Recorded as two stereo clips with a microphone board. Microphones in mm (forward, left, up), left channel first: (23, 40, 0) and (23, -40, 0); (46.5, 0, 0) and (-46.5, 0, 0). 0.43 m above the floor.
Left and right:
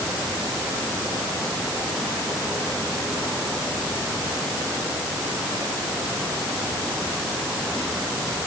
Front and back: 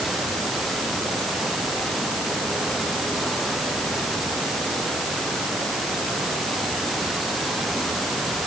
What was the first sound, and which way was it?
Only background noise.